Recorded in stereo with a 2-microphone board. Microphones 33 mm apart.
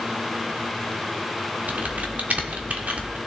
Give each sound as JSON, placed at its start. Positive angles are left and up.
{"t": 1.7, "sound": "typing on a keyboard", "side_deg": -55, "distance_m": 1.2}